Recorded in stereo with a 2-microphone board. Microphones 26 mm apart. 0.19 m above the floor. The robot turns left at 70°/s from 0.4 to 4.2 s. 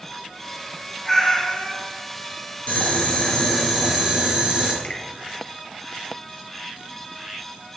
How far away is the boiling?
About 2.5 m.